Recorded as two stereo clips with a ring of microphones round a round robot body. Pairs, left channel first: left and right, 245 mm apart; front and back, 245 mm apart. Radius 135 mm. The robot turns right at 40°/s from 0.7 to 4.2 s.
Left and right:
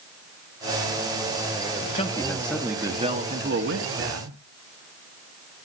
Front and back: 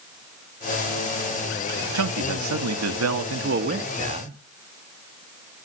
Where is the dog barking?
I don't hear a dog barking.